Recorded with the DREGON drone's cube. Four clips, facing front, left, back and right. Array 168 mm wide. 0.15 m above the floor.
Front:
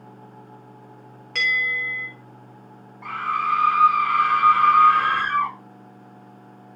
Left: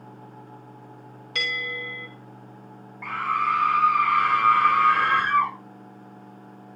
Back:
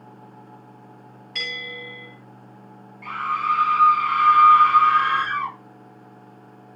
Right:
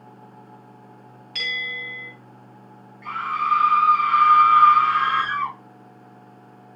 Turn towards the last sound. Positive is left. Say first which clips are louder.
# even, back 1 dB
turn(degrees=60)